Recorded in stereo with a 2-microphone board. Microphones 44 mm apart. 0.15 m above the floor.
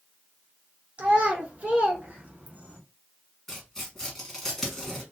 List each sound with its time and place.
1.0 s a child speaking: 30° right (ahead or behind), 1.9 m; by 2.8 s 35° right (ahead or behind), 1.3 m
3.5 s tearing paper: 10° left (ahead or behind), 1.9 m